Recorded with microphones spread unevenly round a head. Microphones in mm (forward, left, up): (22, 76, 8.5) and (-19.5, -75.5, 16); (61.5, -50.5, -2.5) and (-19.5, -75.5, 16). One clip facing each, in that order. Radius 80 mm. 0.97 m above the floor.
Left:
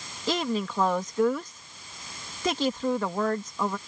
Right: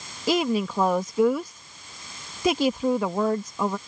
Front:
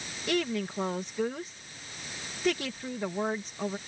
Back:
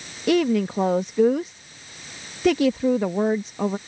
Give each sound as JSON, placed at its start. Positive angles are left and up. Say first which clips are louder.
{"t": 0.3, "sound": "a woman speaking", "louder": "right 5 dB, back 10 dB", "azimuth_deg": 175}